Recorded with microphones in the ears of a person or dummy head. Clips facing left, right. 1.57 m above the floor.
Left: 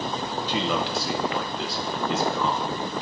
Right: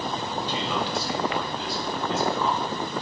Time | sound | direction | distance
0.5 | a man speaking | 50° left (ahead or behind) | 1.3 m